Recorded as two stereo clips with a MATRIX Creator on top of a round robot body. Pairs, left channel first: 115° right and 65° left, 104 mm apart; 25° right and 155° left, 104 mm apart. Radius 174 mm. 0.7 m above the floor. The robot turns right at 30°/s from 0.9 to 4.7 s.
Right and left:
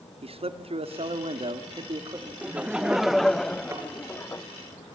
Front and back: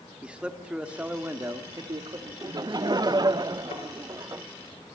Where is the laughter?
135° left, 0.6 m; by 4.4 s 165° right, 0.6 m.